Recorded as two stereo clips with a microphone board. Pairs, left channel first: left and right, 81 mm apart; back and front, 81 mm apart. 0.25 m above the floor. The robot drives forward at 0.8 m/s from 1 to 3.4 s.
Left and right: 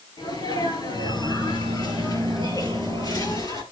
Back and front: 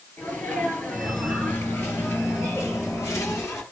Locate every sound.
0.2 s a sneeze: 110° left, 5 m; by 3.6 s 130° left, 6 m